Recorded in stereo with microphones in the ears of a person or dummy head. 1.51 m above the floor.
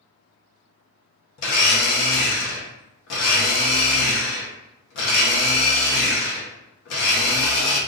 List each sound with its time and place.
1.4 s a blender: 70° left (ahead or behind), 0.9 m